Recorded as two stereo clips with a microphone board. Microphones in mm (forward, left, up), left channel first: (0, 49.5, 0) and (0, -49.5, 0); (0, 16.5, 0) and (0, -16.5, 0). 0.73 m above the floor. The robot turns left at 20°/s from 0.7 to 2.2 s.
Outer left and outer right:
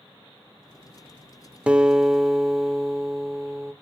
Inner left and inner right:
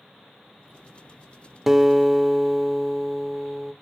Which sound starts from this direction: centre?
A guitar, at 1.7 s.